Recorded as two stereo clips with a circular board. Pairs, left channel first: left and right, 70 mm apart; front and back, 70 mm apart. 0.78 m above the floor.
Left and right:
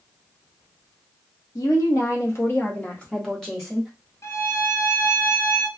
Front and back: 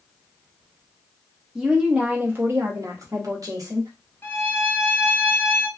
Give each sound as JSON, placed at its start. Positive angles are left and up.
{"t": 1.6, "sound": "a woman speaking", "azimuth_deg": 100, "distance_m": 1.0}
{"t": 4.2, "sound": "a violin", "azimuth_deg": 50, "distance_m": 0.5}